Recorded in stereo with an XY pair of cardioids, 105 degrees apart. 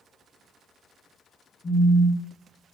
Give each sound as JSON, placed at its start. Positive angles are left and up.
{"t": 1.6, "sound": "a phone buzzing", "azimuth_deg": 20, "distance_m": 0.9}